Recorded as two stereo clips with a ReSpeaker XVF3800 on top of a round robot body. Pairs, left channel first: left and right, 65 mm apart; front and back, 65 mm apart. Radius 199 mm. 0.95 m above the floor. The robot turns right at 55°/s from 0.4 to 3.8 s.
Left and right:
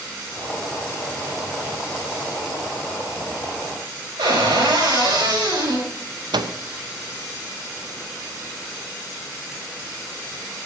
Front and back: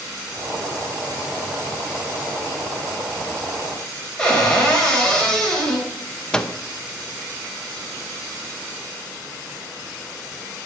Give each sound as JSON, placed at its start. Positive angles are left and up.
{"t": 4.2, "sound": "a cupboard door", "azimuth_deg": -80, "distance_m": 4.5}
{"t": 6.3, "sound": "a microwave", "azimuth_deg": -80, "distance_m": 1.0}